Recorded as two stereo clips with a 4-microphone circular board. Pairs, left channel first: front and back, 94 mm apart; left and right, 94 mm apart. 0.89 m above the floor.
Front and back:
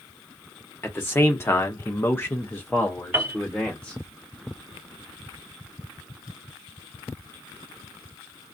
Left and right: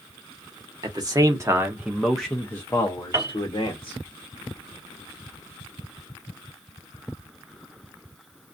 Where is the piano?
125° right, 0.7 m.